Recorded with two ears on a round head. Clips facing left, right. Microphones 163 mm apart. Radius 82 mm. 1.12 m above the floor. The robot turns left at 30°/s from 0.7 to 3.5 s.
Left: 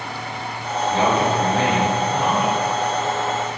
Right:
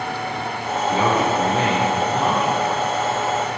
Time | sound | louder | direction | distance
0.9 | a man speaking | even | 70° right | 3.5 m